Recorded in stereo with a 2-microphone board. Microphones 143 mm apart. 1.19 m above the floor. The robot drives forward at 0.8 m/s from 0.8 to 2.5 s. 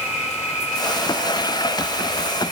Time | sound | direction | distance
0.0 | an insect | 45° left (ahead or behind) | 5 m